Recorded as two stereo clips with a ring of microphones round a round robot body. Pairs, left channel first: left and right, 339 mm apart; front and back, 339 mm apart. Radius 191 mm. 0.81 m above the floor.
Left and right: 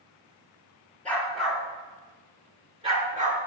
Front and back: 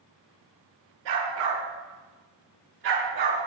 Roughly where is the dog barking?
Behind.